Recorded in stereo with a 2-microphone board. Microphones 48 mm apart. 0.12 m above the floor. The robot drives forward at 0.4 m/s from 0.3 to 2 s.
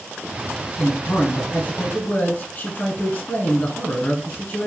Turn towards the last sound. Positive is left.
turn(degrees=30)  # may be behind; listen again after turning